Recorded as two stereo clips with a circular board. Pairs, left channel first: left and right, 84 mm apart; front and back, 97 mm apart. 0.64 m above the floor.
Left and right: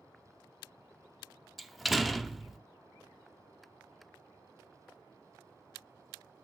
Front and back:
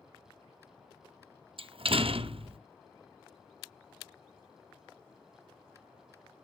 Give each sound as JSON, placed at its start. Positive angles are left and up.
{"t": 1.6, "sound": "a door slam", "azimuth_deg": 180, "distance_m": 0.6}